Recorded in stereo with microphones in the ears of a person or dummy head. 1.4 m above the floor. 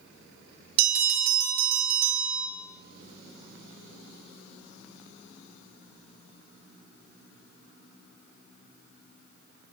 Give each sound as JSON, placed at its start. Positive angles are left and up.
{"t": 0.8, "sound": "a bell", "side_deg": -55, "distance_m": 2.5}